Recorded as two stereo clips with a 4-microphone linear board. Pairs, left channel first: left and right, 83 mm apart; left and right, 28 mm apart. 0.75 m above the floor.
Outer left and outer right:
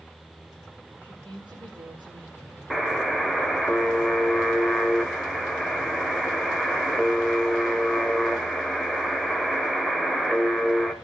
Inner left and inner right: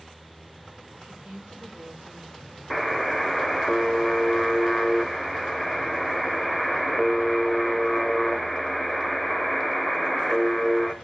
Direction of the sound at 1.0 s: 80° right.